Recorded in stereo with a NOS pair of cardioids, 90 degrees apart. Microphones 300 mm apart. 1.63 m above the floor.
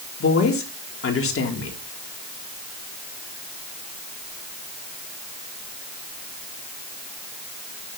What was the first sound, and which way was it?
A woman speaking, 45° left.